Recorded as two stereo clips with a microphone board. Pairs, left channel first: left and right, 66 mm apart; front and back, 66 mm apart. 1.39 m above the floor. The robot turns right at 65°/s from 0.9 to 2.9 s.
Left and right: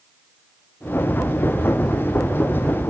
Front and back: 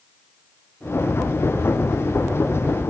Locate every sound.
Only background noise.